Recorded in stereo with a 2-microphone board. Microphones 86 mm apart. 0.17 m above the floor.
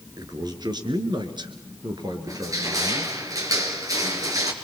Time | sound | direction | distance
0.2 | a man speaking | 50° right (ahead or behind) | 3 m
2.3 | crushing | 45° right (ahead or behind) | 3 m